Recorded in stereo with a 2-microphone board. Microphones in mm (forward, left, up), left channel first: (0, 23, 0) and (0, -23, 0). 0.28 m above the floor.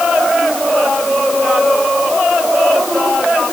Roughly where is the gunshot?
I don't hear a gunshot.